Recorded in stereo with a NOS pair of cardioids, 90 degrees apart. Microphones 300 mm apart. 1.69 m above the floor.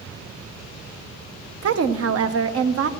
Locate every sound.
1.6 s a woman speaking: 50° right, 1.0 m